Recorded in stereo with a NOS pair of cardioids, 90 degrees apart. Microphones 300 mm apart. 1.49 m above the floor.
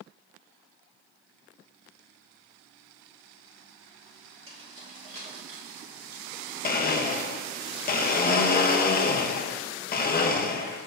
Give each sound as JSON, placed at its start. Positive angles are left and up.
{"t": 4.5, "sound": "keys jangling", "azimuth_deg": -20, "distance_m": 2.0}
{"t": 6.6, "sound": "a blender", "azimuth_deg": 30, "distance_m": 0.8}